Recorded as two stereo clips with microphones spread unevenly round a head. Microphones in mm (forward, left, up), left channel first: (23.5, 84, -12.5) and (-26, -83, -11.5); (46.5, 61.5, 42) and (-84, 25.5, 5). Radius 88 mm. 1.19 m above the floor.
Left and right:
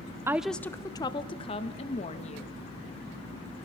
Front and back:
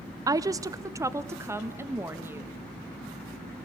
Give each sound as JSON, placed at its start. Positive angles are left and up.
{"t": 0.3, "sound": "a woman speaking", "azimuth_deg": -175, "distance_m": 0.6}